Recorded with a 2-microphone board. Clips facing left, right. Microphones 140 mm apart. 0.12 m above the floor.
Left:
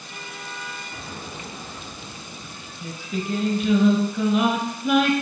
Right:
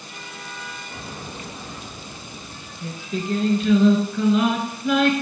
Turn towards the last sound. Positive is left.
turn(degrees=10)  # may be behind; listen again after turning